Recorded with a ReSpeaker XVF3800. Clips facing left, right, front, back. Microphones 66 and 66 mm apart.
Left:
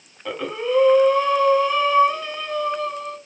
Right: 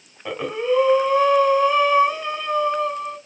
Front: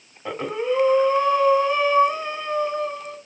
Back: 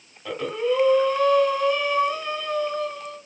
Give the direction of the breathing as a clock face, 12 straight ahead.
1 o'clock.